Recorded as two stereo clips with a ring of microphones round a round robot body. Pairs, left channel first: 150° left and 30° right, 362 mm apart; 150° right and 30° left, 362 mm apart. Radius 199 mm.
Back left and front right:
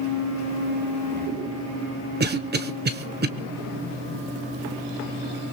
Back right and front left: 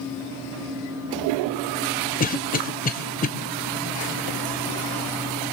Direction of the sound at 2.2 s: 85° right.